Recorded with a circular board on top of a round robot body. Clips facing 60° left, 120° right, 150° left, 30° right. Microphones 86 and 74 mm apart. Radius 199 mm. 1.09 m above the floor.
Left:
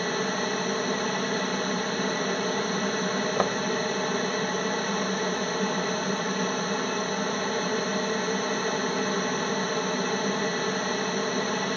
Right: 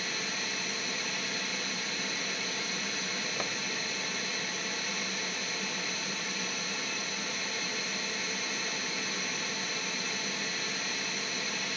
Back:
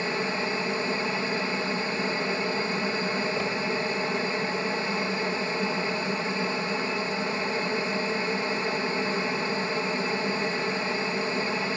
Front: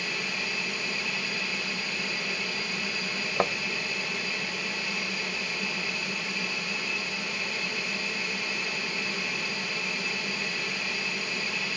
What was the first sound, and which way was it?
An aircraft, 95° left.